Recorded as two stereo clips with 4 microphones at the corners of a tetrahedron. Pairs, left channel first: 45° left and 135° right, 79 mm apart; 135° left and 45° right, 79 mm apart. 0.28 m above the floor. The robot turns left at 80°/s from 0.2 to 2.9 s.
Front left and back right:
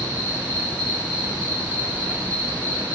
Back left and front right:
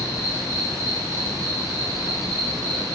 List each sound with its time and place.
0.0 s an insect: 30° left, 1.4 m; by 3.0 s 170° left, 1.4 m